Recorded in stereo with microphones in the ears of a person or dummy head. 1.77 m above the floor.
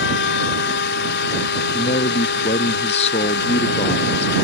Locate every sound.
0.0 s a machine running: 65° left (ahead or behind)
1.7 s a man speaking: 35° left (ahead or behind)